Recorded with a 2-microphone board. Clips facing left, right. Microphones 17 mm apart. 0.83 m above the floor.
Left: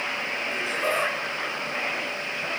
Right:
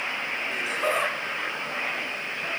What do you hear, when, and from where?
0.5 s laughter: 15° right (ahead or behind), 9.5 m; by 2.5 s centre (ahead or behind), 8.5 m